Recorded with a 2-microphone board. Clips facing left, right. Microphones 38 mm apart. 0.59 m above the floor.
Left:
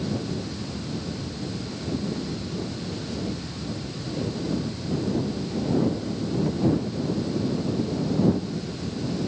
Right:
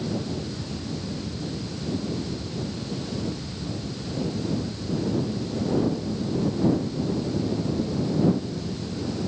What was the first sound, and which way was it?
Only background noise.